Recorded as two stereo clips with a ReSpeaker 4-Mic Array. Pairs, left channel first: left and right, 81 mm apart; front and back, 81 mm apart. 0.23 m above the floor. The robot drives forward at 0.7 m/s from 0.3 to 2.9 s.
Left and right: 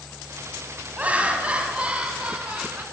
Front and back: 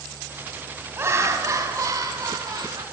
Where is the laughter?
150° right, 1.8 m; by 2.8 s 165° right, 3 m.